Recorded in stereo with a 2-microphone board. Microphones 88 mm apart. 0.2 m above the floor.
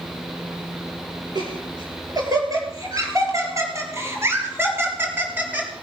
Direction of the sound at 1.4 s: 55° right (ahead or behind).